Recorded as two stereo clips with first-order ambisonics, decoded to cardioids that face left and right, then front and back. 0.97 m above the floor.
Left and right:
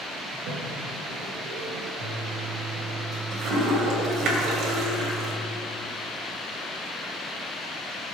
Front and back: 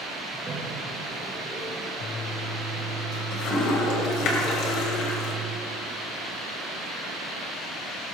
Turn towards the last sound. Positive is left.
turn(degrees=-40)